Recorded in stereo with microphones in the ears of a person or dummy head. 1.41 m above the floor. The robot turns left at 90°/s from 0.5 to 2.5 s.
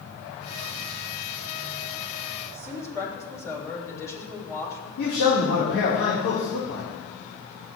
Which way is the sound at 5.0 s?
85° left.